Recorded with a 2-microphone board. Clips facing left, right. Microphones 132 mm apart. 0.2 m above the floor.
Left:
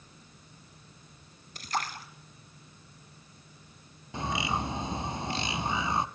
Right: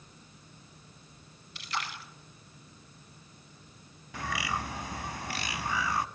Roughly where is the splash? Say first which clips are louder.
Left 4 dB; left.